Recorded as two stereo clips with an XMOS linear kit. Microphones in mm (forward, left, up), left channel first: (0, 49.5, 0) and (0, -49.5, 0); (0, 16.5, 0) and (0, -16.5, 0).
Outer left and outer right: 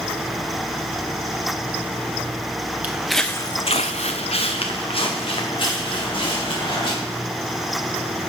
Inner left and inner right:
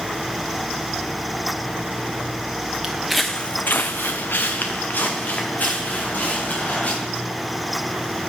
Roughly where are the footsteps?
Centre.